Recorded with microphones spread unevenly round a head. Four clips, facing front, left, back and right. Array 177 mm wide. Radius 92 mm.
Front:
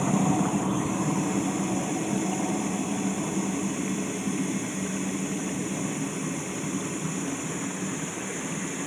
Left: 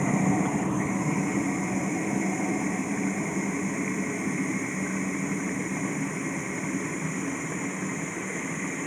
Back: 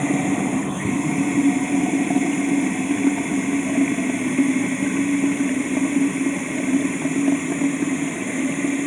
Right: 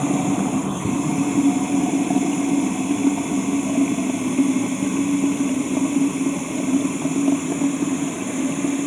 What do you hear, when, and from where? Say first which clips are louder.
0.0 s running water: right 5 dB, back 4 dB; 130° right